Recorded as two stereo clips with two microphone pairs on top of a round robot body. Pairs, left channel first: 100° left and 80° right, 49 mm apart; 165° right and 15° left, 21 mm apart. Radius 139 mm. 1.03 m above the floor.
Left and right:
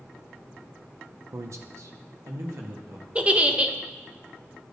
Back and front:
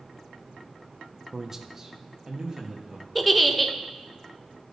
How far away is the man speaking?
About 0.6 m.